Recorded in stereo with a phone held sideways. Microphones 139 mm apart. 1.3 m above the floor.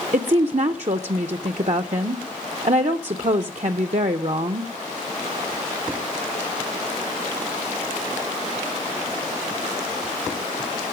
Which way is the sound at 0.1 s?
55° right (ahead or behind).